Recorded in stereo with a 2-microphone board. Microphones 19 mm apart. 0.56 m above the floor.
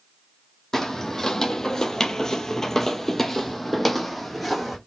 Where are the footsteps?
20° left (ahead or behind), 1.0 m; by 4.8 s 5° left (ahead or behind), 1.3 m.